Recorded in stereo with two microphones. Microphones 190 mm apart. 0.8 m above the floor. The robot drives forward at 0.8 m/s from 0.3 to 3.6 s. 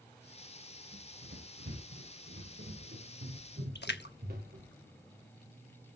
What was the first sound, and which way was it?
Running footsteps, 70° right (ahead or behind).